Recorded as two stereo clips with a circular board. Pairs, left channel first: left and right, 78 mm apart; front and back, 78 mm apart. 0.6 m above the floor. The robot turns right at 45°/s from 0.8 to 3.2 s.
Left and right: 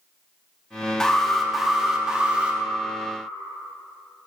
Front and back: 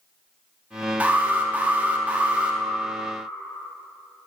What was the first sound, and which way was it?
An alarm, 155° left.